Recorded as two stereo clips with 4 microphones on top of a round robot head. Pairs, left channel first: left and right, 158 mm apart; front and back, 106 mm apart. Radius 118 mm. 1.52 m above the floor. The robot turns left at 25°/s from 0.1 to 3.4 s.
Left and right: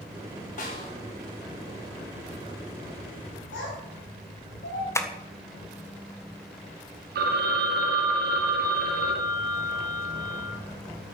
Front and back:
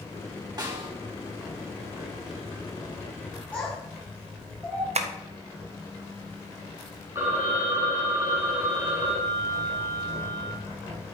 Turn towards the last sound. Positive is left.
turn(degrees=-105)